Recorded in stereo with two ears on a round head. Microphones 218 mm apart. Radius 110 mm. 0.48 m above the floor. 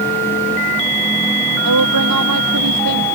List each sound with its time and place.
1.6 s a woman speaking: 80° right; by 3.0 s 85° right